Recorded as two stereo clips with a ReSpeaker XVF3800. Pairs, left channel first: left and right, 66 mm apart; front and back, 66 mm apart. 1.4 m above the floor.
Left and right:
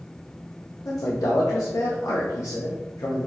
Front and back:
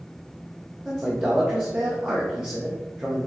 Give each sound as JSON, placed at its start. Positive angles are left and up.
{"t": 0.8, "sound": "a man speaking", "azimuth_deg": 115, "distance_m": 0.7}